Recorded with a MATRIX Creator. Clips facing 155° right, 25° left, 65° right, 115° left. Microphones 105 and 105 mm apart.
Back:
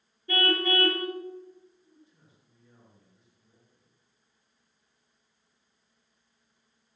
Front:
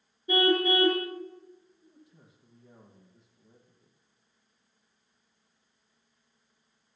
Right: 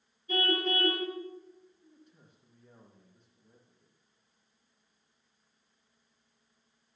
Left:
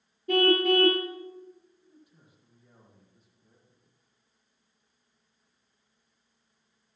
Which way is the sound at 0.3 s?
95° left.